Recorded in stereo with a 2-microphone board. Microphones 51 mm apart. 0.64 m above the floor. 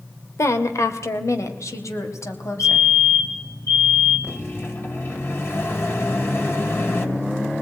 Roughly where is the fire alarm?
Left.